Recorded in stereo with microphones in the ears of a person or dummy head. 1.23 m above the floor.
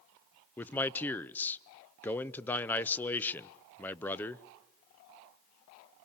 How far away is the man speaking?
About 0.6 m.